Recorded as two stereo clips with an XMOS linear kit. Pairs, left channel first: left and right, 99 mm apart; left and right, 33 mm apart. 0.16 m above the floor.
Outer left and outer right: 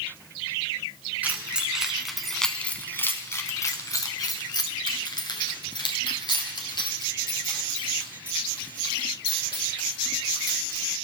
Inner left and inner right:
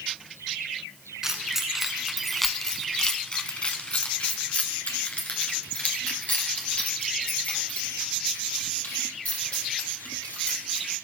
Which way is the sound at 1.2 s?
15° right (ahead or behind).